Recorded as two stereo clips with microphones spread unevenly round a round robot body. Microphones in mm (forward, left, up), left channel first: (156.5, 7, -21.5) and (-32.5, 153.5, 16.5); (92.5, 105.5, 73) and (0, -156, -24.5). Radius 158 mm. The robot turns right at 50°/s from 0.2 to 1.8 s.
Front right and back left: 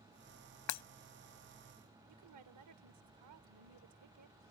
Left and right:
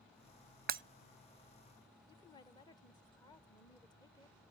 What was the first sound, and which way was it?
Breaking glass, 55° right.